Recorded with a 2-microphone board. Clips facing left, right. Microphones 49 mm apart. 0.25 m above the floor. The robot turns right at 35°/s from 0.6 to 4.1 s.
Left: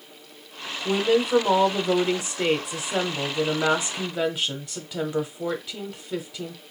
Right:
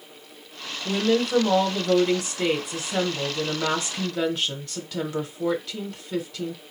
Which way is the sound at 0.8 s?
10° left (ahead or behind).